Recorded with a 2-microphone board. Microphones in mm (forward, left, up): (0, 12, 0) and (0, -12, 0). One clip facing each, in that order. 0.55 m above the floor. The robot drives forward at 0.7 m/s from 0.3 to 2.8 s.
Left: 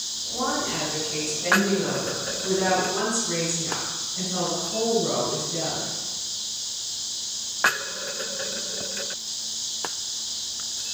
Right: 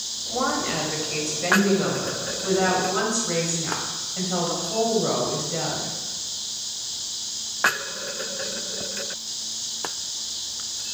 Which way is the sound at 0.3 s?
65° right (ahead or behind).